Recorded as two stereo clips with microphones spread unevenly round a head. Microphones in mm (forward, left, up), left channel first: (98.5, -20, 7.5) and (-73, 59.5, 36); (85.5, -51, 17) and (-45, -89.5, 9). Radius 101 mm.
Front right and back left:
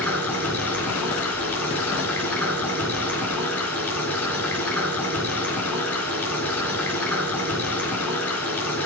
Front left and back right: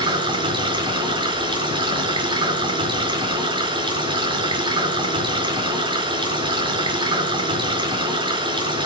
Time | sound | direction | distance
0.0 | running water | 110° right | 4.5 m